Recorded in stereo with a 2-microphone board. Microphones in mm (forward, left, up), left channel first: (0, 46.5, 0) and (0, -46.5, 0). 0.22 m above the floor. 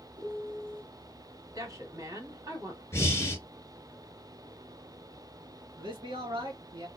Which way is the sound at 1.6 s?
35° right (ahead or behind).